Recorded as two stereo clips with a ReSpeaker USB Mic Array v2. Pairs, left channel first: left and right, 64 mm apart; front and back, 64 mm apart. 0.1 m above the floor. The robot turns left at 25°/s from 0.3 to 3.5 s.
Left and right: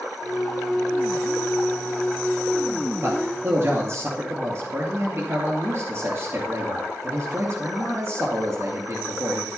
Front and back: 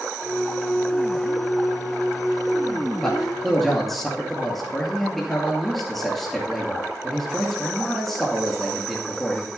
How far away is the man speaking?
About 2.5 m.